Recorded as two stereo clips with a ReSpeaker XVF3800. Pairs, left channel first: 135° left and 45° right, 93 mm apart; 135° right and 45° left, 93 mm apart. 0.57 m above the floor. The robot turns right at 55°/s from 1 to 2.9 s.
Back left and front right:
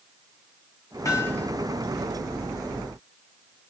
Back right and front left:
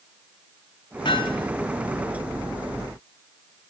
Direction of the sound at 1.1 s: 170° right.